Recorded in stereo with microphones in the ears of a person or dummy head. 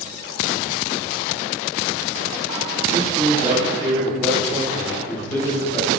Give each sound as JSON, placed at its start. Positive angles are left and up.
{"t": 2.9, "sound": "a man speaking", "side_deg": -25, "distance_m": 2.0}